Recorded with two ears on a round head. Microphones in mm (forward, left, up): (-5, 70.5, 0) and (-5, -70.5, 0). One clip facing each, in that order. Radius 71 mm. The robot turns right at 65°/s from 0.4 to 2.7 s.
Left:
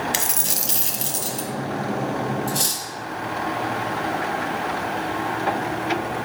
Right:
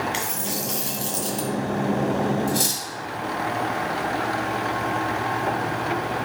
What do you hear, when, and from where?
0.1 s a dropped coin: 115° left, 1.5 m; by 1.5 s 175° right, 1.5 m
2.5 s cutlery clinking: 5° left (ahead or behind), 1.8 m; by 2.8 s 10° right (ahead or behind), 1.8 m